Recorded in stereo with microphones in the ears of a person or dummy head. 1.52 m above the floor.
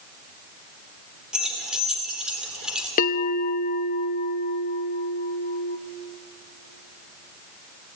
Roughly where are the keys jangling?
Centre.